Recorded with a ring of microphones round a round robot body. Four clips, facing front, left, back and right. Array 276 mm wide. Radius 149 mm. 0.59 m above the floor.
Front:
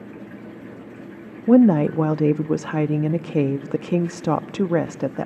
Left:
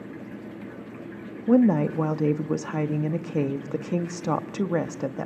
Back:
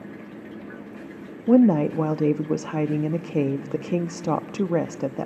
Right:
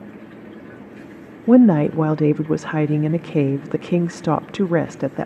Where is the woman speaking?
70° right, 0.6 m.